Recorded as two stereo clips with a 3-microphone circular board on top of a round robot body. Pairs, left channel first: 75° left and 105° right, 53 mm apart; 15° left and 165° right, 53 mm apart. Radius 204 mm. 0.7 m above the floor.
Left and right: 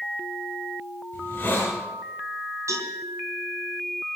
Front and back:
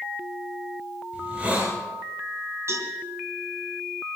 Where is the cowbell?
125° right, 4 m.